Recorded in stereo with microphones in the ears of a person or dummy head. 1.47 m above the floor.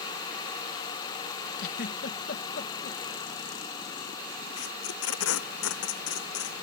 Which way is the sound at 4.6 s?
85° left.